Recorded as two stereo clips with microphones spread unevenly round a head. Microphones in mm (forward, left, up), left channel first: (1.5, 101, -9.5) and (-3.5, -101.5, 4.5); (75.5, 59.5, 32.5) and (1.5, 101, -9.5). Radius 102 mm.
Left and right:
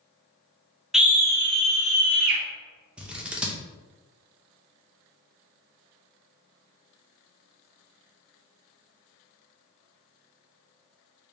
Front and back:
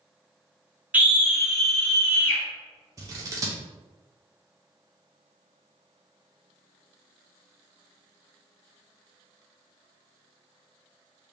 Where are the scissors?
Straight behind, 0.7 m.